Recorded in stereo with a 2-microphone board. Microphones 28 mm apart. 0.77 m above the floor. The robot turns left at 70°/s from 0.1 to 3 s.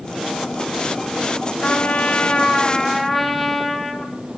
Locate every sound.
1.6 s a trumpet: 95° left, 1.2 m; by 4.1 s 5° right, 1.2 m